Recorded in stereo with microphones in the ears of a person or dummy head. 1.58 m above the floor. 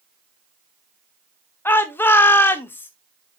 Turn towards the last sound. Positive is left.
turn(degrees=10)  # may be behind; listen again after turning